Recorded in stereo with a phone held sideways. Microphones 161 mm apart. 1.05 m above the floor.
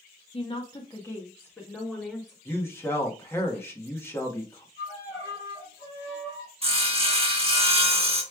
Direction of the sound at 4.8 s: 20° left (ahead or behind).